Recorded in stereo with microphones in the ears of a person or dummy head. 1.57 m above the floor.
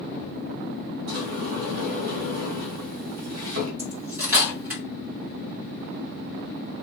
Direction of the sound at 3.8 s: 15° right (ahead or behind).